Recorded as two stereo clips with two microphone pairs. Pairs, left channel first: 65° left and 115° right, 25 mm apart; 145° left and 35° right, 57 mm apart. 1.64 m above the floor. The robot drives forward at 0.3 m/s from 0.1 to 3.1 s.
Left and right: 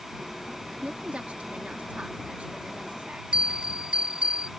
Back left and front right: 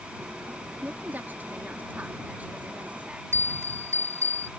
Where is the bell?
75° right.